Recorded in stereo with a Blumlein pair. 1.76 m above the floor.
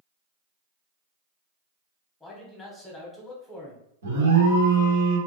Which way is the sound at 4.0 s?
65° right.